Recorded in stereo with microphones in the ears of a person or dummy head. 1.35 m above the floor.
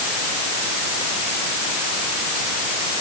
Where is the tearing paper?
I don't hear tearing paper.